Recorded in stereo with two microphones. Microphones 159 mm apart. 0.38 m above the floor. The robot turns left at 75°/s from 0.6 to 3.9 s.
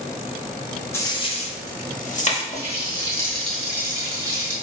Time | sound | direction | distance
0.9 | a dropped coin | 15° left (ahead or behind) | 0.6 m
2.5 | a running tap | 75° left | 1.0 m